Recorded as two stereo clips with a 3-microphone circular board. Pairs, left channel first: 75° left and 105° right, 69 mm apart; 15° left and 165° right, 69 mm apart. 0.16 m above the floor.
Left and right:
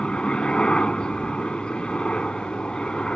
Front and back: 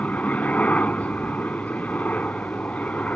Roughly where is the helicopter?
Ahead left.